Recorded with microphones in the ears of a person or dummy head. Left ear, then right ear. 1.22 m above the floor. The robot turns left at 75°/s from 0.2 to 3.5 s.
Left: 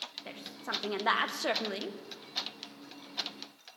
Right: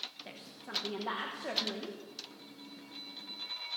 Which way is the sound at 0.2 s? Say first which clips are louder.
Left 8 dB; 170° left.